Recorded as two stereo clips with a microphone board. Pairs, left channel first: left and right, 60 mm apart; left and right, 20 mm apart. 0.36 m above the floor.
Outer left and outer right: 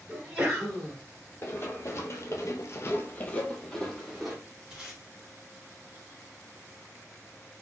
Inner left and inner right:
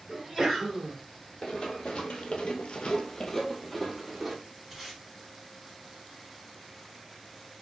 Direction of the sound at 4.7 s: 10° right (ahead or behind).